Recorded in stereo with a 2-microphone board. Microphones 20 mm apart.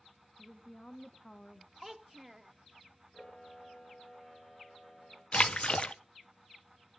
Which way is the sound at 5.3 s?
55° left (ahead or behind).